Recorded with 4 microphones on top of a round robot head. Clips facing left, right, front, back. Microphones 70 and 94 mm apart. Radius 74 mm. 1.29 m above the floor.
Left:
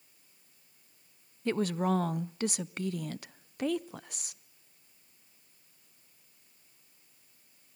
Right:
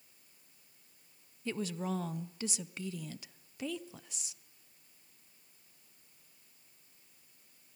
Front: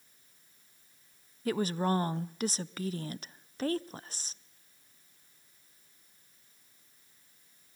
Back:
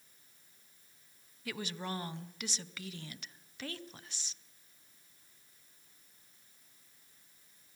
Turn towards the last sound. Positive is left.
turn(degrees=55)